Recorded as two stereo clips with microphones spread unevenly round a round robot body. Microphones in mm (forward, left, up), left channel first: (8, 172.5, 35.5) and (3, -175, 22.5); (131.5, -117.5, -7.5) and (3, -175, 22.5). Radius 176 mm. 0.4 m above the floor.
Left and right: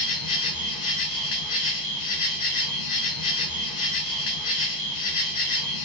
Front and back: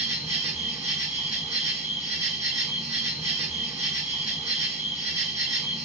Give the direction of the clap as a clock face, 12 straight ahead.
No clap in this recording.